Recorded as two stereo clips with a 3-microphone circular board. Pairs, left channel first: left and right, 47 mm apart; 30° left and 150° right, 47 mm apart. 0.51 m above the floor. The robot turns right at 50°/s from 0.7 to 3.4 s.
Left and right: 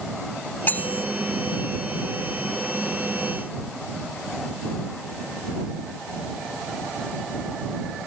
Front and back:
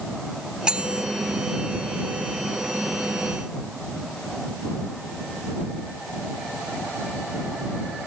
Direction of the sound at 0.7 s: 140° left.